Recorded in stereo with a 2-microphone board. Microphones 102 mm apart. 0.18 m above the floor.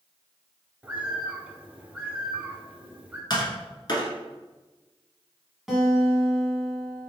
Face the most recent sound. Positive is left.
turn(degrees=-5)  # may be behind; listen again after turning